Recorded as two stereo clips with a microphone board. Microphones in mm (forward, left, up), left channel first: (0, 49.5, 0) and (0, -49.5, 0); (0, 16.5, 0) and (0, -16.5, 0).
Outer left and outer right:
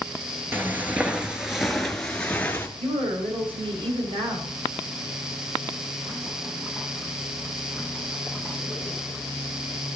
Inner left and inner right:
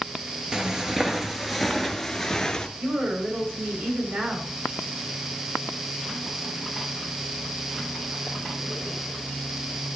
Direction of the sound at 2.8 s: 75° right (ahead or behind).